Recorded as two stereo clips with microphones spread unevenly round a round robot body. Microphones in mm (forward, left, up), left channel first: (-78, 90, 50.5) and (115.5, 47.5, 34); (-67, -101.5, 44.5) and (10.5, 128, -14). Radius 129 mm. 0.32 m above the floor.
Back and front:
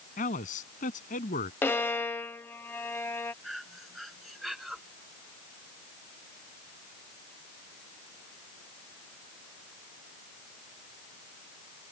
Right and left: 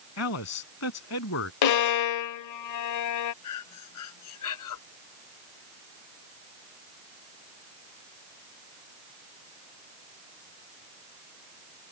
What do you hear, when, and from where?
0.2 s a man speaking: 135° right
1.6 s a violin: 110° right
3.4 s breathing: 100° right